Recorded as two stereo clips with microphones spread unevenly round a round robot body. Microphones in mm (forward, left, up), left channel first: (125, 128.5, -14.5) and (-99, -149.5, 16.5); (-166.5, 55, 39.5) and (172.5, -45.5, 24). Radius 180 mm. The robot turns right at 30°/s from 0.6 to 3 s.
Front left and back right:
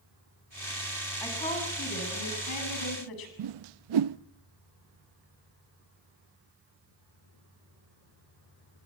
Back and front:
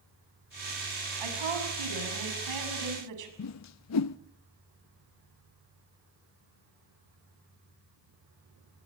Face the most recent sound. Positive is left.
turn(degrees=-150)